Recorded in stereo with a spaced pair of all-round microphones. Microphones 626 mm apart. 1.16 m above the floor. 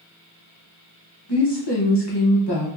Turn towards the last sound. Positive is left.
turn(degrees=40)  # may be behind; listen again after turning